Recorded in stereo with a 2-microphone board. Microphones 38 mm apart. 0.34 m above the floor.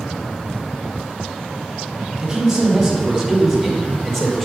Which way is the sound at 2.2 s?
10° right (ahead or behind).